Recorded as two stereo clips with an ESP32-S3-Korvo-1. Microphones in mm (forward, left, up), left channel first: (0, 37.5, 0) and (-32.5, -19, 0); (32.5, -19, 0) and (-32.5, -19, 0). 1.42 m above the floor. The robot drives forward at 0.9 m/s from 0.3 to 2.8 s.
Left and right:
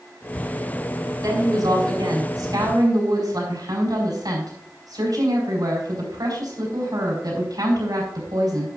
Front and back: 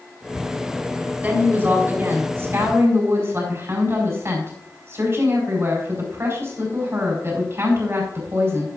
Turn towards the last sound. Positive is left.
turn(degrees=-130)